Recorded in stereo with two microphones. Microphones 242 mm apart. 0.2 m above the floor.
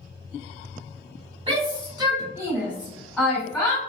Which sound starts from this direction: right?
A shout, at 1.5 s.